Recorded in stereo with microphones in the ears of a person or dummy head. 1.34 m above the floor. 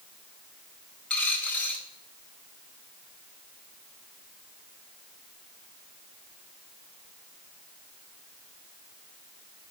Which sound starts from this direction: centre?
A dropped coin, at 1.1 s.